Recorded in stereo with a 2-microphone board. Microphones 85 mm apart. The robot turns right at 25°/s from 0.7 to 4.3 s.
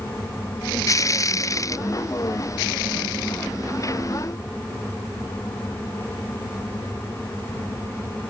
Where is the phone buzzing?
No phone buzzing in this recording.